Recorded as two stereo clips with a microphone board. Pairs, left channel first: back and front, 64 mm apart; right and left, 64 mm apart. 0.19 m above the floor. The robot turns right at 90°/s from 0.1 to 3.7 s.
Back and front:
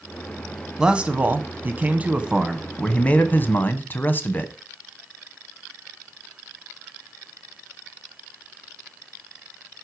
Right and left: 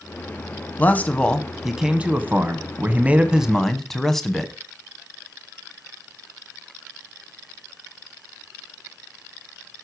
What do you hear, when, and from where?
0.8 s a man speaking: 70° right, 1.1 m; by 4.5 s 170° right, 1.1 m